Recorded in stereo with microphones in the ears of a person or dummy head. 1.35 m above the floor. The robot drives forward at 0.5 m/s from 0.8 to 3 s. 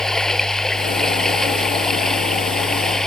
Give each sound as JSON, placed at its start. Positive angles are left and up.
{"t": 0.0, "sound": "running water", "side_deg": 5}